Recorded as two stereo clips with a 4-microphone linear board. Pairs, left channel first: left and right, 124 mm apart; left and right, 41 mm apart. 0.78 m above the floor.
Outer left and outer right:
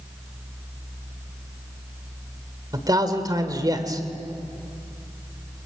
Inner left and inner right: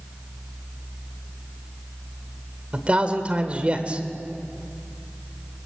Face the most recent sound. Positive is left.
turn(degrees=-30)  # may be behind; listen again after turning